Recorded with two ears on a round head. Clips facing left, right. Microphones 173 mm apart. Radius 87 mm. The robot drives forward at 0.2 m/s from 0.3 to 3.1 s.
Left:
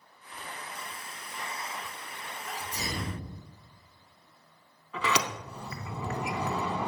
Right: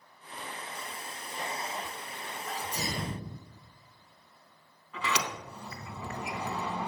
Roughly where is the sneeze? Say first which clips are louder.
Right 1 dB; right.